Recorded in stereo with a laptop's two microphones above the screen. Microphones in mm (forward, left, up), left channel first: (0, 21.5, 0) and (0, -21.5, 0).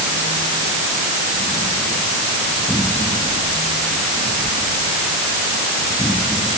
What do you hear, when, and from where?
Only background noise.